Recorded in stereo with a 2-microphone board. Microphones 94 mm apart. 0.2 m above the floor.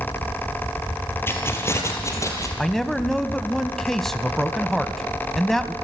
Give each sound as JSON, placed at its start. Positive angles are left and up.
{"t": 1.3, "sound": "keys jangling", "side_deg": 25, "distance_m": 3.5}
{"t": 2.6, "sound": "a man speaking", "side_deg": 5, "distance_m": 1.0}